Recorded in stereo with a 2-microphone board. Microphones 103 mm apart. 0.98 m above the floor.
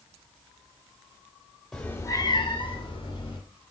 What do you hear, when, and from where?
1.7 s a cat meowing: 5° left (ahead or behind), 0.8 m; by 3.4 s 50° left (ahead or behind), 1.7 m